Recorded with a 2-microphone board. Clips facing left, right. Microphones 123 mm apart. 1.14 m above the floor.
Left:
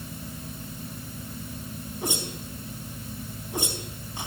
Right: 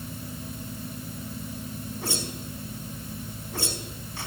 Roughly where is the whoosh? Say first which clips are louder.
Left 3 dB; centre.